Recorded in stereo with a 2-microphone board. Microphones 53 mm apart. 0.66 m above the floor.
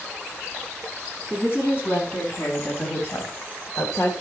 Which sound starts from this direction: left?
A woman speaking, at 1.3 s.